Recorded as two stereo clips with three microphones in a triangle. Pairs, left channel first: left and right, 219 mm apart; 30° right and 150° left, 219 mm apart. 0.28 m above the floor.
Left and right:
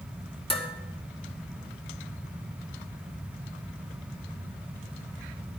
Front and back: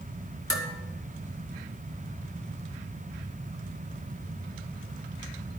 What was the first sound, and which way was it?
Dishes clattering, 155° left.